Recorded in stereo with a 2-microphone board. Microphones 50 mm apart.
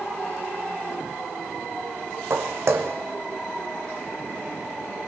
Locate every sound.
2.3 s footsteps: 60° right (ahead or behind), 1.2 m